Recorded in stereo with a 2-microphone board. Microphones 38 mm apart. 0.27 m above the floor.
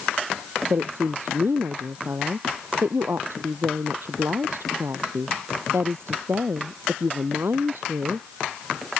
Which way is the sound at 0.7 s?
70° right (ahead or behind).